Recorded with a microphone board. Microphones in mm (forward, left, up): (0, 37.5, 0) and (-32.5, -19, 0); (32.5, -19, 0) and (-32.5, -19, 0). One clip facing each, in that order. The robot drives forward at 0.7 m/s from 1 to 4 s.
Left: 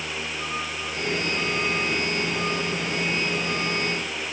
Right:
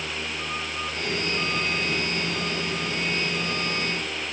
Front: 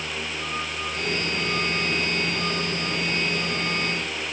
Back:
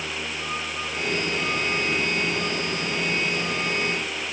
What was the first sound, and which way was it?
Only background noise.